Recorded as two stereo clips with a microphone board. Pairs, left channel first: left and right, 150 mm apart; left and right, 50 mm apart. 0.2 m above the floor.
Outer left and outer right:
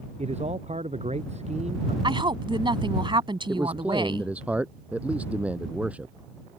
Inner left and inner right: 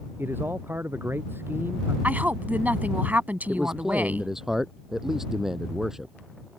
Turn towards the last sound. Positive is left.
turn(degrees=-10)  # may be behind; listen again after turning